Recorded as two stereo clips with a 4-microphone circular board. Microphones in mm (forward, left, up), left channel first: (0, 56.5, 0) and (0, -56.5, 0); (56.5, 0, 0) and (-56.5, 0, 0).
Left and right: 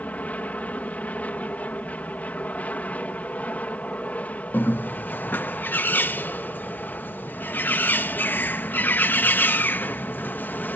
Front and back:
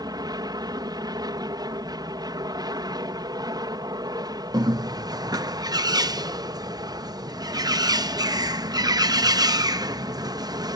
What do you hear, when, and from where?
0.0 s an aircraft: 160° left
4.5 s a bird: 155° left